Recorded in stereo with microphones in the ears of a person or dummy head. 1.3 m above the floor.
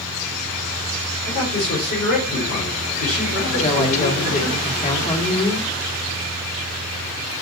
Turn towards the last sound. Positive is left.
turn(degrees=40)  # may be behind; listen again after turning